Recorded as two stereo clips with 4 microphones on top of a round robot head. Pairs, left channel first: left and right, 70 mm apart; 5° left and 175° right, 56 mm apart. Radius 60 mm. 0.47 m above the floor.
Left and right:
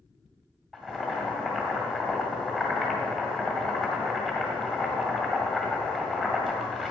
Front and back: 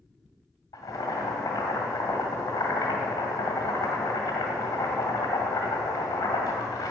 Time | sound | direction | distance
0.7 | boiling | 10° right | 1.9 m